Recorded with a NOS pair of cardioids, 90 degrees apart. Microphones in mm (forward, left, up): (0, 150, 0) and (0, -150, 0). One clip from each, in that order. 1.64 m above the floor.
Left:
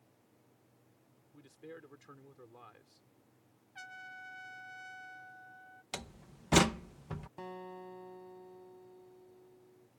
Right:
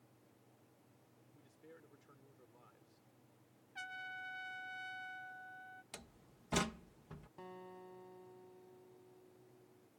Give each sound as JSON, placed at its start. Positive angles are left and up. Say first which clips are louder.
{"t": 1.3, "sound": "a man speaking", "louder": "left 10 dB", "azimuth_deg": 70}
{"t": 3.8, "sound": "a trumpet", "louder": "right 1 dB", "azimuth_deg": -10}
{"t": 5.9, "sound": "a door slam", "louder": "left 11 dB", "azimuth_deg": 65}
{"t": 7.4, "sound": "a guitar", "louder": "left 6 dB", "azimuth_deg": 50}